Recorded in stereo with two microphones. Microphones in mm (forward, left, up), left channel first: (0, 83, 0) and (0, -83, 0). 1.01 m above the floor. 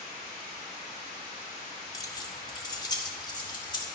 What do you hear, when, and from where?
1.9 s keys jangling: 20° left (ahead or behind), 1.2 m; by 3.9 s 30° left (ahead or behind), 2.5 m